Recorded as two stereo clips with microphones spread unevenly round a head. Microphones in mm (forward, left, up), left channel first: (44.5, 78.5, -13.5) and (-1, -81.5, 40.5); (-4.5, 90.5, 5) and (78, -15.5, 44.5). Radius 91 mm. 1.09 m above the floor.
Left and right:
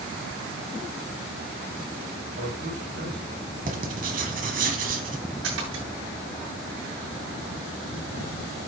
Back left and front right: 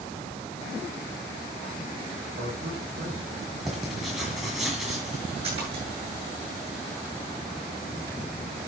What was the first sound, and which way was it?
A man speaking, 80° right.